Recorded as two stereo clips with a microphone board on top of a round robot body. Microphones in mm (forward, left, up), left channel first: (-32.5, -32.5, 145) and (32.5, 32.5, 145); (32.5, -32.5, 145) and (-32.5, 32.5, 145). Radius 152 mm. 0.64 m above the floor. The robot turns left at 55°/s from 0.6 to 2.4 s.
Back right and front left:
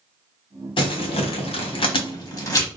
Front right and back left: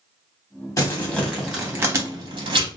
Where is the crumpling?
100° right, 1.1 m; by 2.7 s 170° left, 1.1 m.